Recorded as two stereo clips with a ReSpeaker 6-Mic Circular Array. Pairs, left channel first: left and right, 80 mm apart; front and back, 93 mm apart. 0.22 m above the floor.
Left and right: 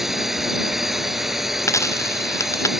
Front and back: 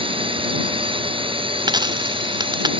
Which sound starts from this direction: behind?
A drone, at 0.0 s.